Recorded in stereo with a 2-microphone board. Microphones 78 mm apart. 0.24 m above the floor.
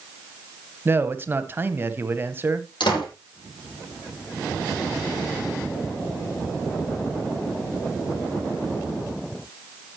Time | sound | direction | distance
0.8 | a man speaking | 30° right (ahead or behind) | 1.1 m
2.8 | a door slam | 80° left | 7 m